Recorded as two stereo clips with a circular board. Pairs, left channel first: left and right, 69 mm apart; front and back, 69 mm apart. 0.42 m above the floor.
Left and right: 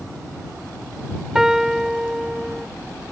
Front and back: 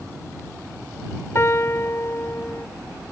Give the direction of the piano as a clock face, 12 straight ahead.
12 o'clock.